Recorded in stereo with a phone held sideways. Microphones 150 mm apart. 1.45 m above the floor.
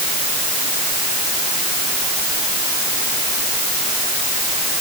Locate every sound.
Only background noise.